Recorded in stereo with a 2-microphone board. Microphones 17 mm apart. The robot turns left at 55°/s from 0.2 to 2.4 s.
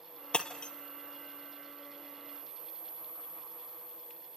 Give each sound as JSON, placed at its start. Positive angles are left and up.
{"t": 0.3, "sound": "breaking glass", "side_deg": 80, "distance_m": 1.5}